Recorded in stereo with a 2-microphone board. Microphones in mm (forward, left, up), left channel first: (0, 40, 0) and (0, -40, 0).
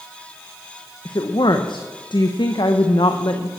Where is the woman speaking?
75° left (ahead or behind), 0.8 m.